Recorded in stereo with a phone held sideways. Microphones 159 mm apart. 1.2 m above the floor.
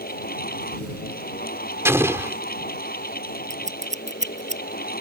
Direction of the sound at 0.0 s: 70° left (ahead or behind).